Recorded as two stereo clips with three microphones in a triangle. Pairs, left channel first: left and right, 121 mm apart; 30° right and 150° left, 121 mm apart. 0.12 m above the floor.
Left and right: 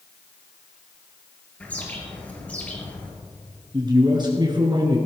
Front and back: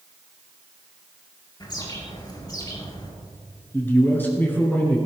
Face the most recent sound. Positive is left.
turn(degrees=-95)